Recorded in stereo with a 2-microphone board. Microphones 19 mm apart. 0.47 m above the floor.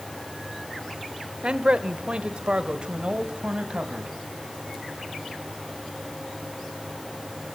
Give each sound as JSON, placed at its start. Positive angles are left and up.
{"t": 1.4, "sound": "a man speaking", "side_deg": -55, "distance_m": 1.2}